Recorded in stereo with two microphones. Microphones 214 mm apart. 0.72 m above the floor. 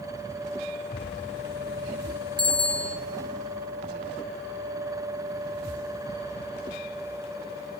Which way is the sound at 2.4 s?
20° right (ahead or behind).